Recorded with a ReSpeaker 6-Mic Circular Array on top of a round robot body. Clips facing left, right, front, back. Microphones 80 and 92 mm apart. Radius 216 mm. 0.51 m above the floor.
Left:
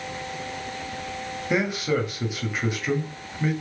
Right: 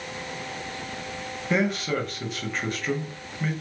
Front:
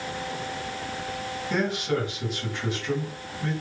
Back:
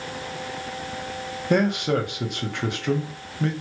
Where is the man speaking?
170° left, 1.5 m.